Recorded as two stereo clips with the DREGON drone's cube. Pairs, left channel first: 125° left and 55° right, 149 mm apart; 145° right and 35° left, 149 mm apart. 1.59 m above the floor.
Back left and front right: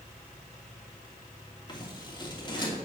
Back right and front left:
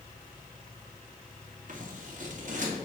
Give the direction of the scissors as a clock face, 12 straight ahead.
10 o'clock.